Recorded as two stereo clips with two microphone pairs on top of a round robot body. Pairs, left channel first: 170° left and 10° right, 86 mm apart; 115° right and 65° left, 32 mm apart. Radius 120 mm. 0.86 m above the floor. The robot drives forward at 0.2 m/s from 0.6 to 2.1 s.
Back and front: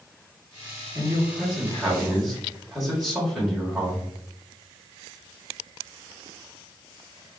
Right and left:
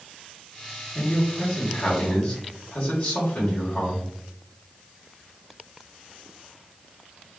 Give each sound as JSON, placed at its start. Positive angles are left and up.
{"t": 0.9, "sound": "a man speaking", "azimuth_deg": -85, "distance_m": 1.4}